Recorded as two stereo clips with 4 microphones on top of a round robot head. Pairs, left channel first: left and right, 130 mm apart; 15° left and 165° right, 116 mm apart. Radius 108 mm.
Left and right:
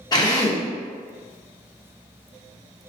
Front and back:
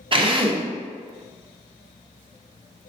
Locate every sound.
0.1 s a drill: 150° left, 0.7 m